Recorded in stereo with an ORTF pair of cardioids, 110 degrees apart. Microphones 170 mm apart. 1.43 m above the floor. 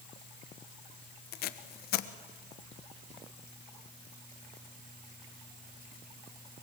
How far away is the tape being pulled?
About 1.3 m.